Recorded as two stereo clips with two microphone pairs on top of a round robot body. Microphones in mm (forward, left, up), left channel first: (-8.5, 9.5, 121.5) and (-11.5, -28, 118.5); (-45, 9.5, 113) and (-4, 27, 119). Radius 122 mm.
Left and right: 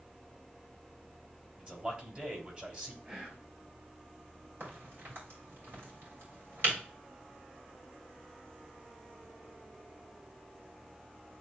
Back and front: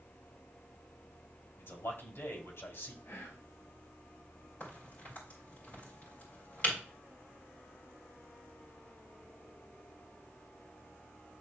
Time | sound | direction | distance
1.6 | a man speaking | 150° right | 3.5 m
3.0 | whispering | 140° right | 4.5 m
4.6 | a crack | 115° right | 4 m